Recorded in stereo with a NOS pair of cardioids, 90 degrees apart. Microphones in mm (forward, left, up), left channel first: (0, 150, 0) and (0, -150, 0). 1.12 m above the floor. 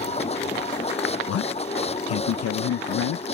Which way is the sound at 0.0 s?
20° left.